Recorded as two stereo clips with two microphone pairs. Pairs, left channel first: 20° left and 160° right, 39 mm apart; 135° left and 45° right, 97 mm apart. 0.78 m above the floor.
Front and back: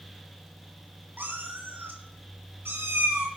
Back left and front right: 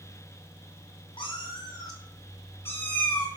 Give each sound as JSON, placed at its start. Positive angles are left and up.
{"t": 1.2, "sound": "a cat meowing", "azimuth_deg": 170, "distance_m": 3.0}